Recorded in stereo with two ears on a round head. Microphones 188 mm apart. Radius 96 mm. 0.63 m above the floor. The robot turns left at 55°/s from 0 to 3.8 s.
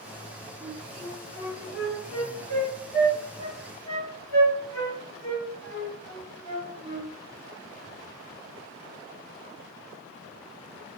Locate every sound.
0.6 s a flute: 10° right (ahead or behind), 2 m; by 7.1 s 10° left (ahead or behind), 2 m